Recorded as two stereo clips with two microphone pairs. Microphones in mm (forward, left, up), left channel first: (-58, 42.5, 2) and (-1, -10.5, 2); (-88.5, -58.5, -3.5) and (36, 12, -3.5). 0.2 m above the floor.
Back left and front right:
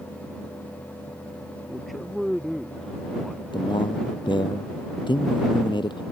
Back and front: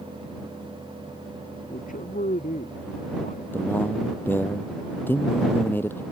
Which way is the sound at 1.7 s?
130° right.